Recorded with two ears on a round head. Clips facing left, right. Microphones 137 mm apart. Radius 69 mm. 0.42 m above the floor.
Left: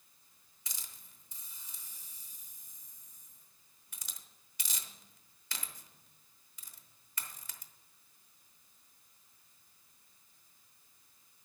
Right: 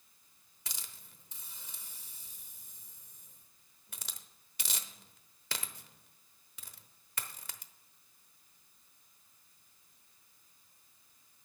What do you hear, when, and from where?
0.7 s a hiss: 50° right (ahead or behind), 0.9 m